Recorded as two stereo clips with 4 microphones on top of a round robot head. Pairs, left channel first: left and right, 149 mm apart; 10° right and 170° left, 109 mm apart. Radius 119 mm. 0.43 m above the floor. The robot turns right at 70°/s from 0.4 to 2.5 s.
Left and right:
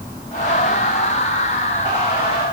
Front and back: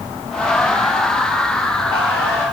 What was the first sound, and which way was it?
Only background noise.